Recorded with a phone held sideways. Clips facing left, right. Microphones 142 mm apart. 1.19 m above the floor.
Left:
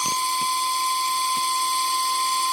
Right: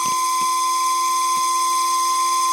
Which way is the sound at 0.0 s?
45° right (ahead or behind).